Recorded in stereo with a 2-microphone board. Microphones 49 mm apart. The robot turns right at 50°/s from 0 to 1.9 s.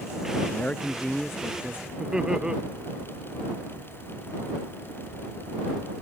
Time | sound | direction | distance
0.4 | a man speaking | 145° left | ?
2.0 | laughter | 15° right (ahead or behind) | ?